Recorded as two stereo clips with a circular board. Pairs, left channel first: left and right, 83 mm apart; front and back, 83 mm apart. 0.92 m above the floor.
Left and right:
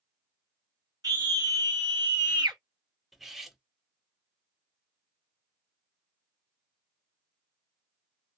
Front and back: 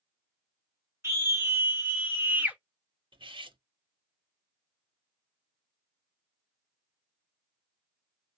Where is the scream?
125° right, 1.7 m; by 2.6 s 110° right, 1.1 m.